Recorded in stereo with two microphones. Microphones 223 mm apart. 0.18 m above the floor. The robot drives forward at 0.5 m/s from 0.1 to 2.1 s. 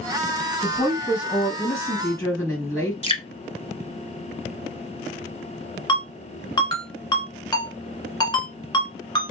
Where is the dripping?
25° left (ahead or behind), 0.8 m.